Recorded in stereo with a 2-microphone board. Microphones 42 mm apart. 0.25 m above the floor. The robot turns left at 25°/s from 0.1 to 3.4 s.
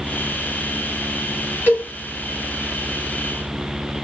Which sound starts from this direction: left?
A cowbell, at 1.7 s.